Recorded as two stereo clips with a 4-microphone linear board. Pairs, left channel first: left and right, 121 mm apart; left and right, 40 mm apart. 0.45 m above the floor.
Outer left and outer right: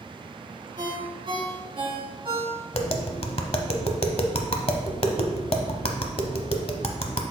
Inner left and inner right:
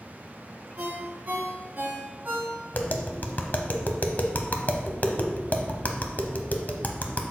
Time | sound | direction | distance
0.8 | a ringtone | 45° right (ahead or behind) | 3 m
2.7 | tapping | 50° left (ahead or behind) | 0.7 m